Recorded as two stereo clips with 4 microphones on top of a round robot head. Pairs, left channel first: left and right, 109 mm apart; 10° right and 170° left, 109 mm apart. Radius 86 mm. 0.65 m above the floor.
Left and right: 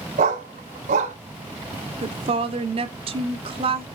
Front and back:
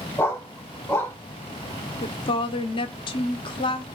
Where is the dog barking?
85° right, 1.1 m.